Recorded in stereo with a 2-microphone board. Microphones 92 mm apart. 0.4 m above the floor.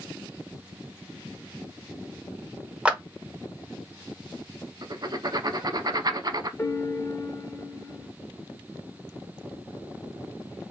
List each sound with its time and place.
2.9 s a clap: 10° right (ahead or behind), 0.8 m
4.8 s writing: 45° right (ahead or behind), 0.5 m
6.6 s a piano: 25° left (ahead or behind), 0.7 m